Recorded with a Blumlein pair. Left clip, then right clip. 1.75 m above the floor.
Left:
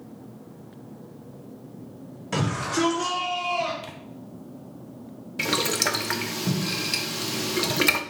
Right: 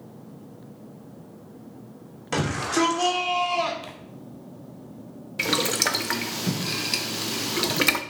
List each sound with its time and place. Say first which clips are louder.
2.3 s a shout: right 2 dB; 20° right, 3 m; by 3.7 s 30° right, 2 m
3.8 s tearing paper: even; straight ahead, 0.9 m
5.4 s boiling: right 1 dB; 5° right, 0.5 m